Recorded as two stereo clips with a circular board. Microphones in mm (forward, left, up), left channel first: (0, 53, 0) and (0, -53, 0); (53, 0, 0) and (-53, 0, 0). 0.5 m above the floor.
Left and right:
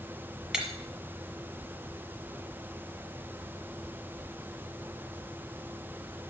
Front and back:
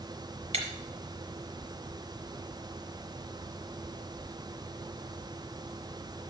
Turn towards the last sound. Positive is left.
turn(degrees=-175)